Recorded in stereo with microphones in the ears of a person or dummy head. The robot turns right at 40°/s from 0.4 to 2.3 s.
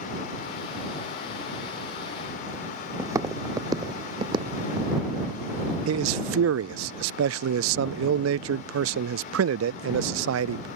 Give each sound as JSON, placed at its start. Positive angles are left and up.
{"t": 3.0, "sound": "footsteps", "side_deg": -15}
{"t": 5.9, "sound": "a man speaking", "side_deg": -80}